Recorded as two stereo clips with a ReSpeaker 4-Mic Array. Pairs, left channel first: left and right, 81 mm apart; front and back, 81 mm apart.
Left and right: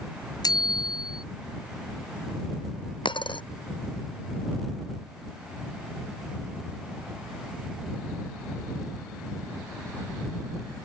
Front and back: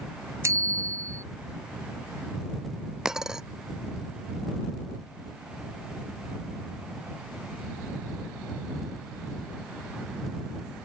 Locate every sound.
0.4 s a bicycle bell: 125° left
3.0 s a dropped coin: 95° left